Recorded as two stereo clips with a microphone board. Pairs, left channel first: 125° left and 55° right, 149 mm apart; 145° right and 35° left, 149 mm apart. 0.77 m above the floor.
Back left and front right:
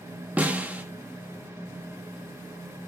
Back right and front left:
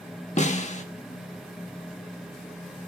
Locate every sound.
0.4 s a snare drum: 135° right, 1.6 m